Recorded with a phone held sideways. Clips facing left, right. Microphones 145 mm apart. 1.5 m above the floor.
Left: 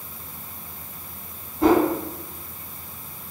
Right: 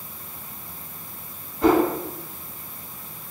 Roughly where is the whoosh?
Left.